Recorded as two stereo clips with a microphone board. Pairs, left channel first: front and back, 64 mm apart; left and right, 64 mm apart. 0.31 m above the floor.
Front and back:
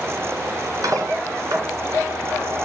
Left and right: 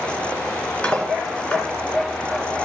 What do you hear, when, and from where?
0.8 s cutlery clinking: 160° left, 2 m